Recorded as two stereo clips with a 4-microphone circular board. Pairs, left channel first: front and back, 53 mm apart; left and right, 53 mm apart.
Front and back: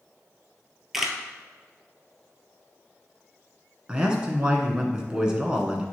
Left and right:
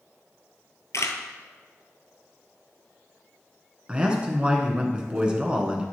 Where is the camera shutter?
95° left, 0.9 m.